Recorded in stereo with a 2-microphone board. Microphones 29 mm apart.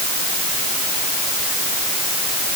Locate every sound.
Only background noise.